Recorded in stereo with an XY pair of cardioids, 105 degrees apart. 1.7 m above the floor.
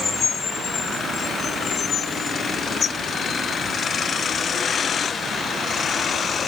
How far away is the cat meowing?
No cat meowing in this recording.